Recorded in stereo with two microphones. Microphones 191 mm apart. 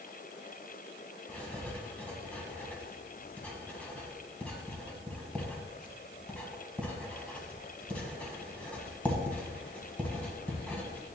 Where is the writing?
10° left (ahead or behind), 1.5 m.